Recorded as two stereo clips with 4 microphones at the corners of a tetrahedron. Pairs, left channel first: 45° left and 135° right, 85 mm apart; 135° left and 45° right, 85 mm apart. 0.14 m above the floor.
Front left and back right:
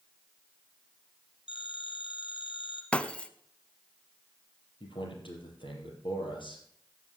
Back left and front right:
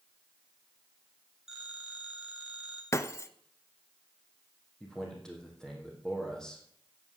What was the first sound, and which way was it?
A phone ringing, 40° left.